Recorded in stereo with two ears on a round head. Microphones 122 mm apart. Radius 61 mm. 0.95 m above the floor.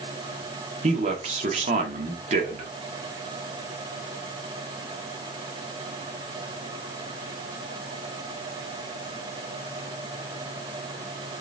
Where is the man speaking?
55° right (ahead or behind), 1.3 m.